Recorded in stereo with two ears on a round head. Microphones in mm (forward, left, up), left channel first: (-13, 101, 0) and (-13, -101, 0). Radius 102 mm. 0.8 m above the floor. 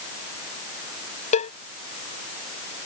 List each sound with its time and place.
1.3 s a cowbell: 30° left (ahead or behind)